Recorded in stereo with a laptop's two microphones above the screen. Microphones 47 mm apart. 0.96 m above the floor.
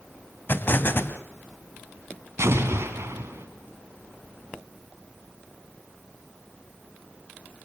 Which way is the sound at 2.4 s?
70° right (ahead or behind).